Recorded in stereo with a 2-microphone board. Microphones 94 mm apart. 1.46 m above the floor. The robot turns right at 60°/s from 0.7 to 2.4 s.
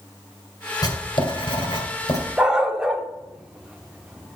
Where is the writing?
50° left, 2 m; by 2.2 s 135° left, 2 m.